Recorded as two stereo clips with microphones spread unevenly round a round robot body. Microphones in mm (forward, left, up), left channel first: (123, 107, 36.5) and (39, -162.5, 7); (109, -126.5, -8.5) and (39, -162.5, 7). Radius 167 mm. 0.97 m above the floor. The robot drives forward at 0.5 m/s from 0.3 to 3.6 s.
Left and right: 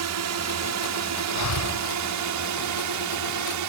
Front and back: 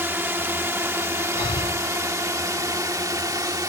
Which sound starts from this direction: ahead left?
Breathing, at 1.4 s.